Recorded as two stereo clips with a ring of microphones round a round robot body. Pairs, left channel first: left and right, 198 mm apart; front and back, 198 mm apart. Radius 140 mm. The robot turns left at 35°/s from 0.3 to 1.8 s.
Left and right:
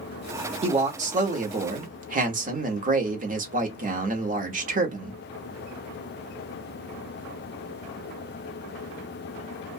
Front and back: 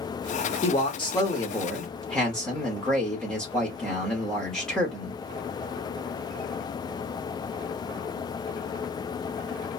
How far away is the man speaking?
About 0.9 m.